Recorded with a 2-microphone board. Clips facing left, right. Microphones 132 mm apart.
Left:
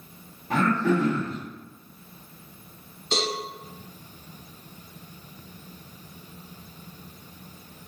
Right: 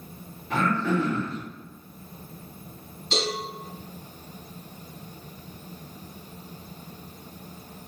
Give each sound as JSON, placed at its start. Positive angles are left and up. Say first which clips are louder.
{"t": 0.5, "sound": "throat clearing", "louder": "left 2 dB", "side_deg": 40, "distance_m": 1.4}
{"t": 3.1, "sound": "a cowbell", "louder": "even", "side_deg": 40, "distance_m": 1.6}